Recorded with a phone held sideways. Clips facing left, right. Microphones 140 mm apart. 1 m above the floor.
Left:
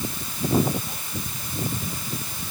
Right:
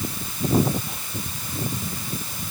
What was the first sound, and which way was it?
Only background noise.